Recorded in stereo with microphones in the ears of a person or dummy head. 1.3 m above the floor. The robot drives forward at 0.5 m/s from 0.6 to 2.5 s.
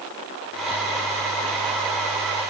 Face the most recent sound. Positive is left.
No sound to turn to.